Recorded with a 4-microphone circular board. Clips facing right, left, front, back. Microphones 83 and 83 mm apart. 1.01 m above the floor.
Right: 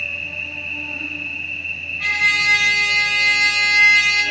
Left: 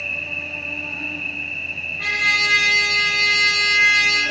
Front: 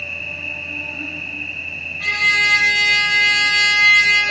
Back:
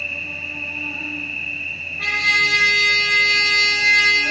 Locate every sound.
0.0 s an insect: 150° left, 4 m
2.0 s a trumpet: 135° left, 2.5 m